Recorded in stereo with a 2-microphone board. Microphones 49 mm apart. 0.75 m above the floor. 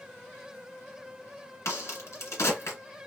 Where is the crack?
60° left (ahead or behind), 1.6 m.